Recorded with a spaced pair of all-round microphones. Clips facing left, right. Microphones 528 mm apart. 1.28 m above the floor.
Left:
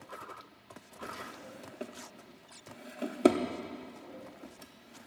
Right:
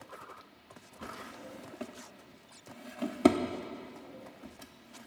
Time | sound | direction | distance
1.0 | a drawer | 20° right (ahead or behind) | 0.9 m